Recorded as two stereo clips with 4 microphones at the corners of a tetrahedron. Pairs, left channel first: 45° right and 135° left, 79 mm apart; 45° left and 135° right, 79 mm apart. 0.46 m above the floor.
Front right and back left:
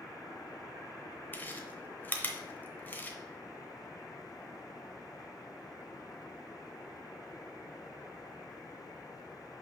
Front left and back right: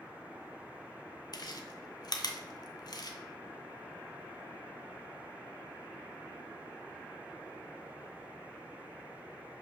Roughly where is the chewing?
Ahead.